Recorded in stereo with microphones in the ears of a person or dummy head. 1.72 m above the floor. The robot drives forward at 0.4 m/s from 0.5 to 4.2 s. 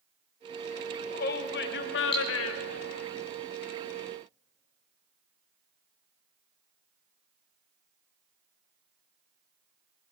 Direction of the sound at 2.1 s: 25° left (ahead or behind).